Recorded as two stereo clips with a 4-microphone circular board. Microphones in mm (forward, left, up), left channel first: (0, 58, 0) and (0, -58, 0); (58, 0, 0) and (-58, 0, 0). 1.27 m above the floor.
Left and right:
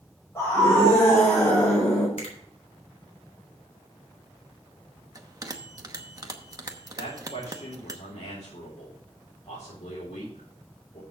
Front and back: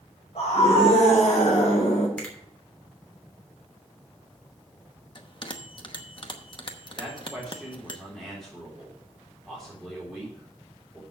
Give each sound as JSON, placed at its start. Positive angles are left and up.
{"t": 0.3, "sound": "a scream", "azimuth_deg": 30, "distance_m": 4.0}
{"t": 2.2, "sound": "a finger snap", "azimuth_deg": 80, "distance_m": 3.0}
{"t": 5.2, "sound": "a bell", "azimuth_deg": -35, "distance_m": 0.9}
{"t": 7.0, "sound": "a man speaking", "azimuth_deg": 85, "distance_m": 4.0}